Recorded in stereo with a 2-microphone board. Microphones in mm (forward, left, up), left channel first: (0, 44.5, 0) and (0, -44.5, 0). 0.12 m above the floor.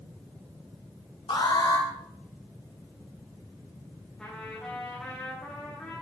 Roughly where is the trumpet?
Centre.